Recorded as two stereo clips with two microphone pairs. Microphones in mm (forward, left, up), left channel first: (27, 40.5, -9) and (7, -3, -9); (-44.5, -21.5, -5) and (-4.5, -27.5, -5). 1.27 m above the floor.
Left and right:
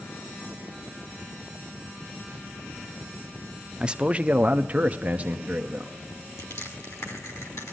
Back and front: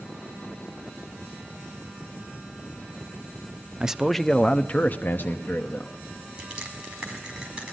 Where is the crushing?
65° left, 5 m.